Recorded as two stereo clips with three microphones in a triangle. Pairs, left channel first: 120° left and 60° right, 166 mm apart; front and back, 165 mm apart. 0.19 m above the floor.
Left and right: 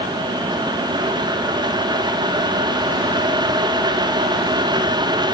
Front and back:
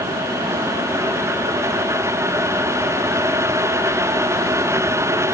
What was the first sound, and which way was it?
Only background noise.